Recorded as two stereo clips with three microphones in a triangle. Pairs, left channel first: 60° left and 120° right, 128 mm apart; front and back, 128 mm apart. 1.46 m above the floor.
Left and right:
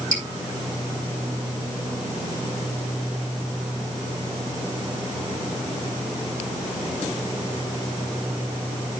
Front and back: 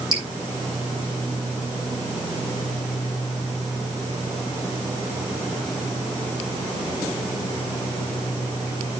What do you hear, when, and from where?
0.1 s dripping: 125° right, 5 m